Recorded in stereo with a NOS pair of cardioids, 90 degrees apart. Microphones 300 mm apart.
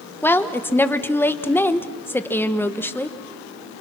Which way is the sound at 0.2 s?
5° left.